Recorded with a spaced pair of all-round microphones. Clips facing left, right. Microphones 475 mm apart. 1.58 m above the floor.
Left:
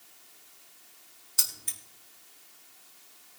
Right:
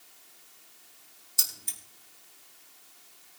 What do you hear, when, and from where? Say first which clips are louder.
1.4 s keys jangling: left 1 dB; 75° left (ahead or behind), 2.5 m